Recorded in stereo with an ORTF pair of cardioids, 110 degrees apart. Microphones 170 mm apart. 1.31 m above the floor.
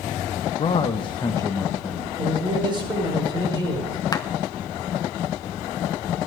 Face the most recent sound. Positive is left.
turn(degrees=20)